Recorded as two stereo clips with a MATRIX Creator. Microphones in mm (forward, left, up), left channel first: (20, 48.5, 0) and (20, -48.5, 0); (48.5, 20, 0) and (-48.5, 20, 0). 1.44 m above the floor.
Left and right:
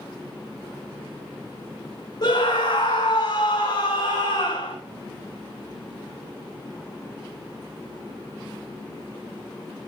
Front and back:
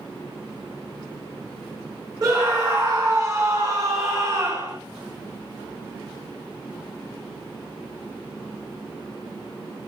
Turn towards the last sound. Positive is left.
turn(degrees=135)